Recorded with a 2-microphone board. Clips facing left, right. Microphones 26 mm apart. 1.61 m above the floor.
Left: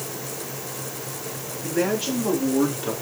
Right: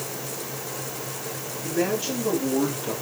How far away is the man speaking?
About 3.5 m.